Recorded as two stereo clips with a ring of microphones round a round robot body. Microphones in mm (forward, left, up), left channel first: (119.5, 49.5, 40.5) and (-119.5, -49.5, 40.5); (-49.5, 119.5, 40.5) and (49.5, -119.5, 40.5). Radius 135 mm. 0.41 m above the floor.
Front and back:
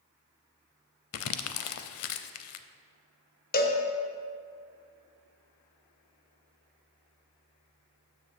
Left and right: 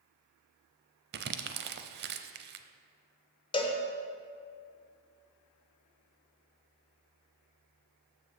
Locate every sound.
1.1 s crumpling: 15° right, 0.5 m
3.5 s a cowbell: 50° left, 1.0 m